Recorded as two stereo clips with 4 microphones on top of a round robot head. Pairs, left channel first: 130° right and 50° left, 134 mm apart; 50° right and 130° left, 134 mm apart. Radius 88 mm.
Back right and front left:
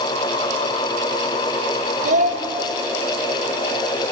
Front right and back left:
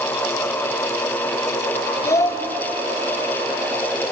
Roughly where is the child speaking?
Ahead.